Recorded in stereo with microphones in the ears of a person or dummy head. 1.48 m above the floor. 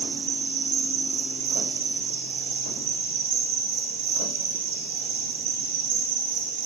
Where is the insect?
30° right (ahead or behind), 2.5 m.